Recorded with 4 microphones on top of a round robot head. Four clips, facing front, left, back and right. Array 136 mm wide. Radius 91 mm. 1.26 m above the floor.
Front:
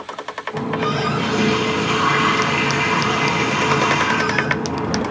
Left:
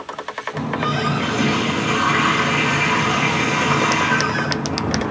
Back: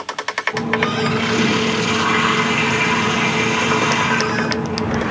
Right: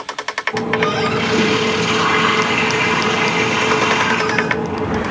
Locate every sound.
0.5 s a running tap: 100° right, 2.5 m